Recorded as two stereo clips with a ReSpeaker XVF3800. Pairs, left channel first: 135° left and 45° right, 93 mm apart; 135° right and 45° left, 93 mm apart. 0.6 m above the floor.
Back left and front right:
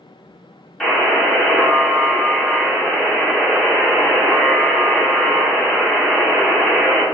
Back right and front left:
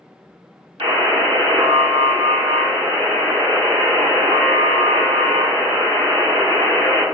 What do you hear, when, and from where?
0.8 s a buzzer: 50° left, 2.0 m